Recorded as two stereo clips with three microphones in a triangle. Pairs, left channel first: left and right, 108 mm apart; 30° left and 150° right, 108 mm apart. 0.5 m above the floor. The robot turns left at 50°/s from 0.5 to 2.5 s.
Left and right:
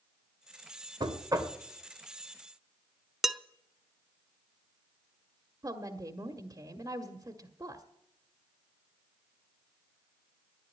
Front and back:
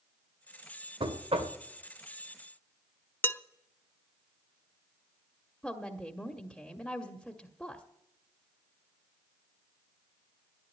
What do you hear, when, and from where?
1.0 s knocking: 125° right, 1.4 m; by 1.6 s 155° right, 1.4 m
3.2 s dishes clattering: 10° right, 0.6 m
5.6 s a woman speaking: 55° right, 1.2 m